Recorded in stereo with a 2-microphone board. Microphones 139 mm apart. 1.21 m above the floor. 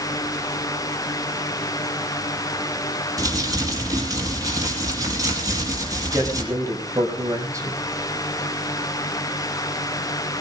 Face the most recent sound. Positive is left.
turn(degrees=-25)  # may be behind; listen again after turning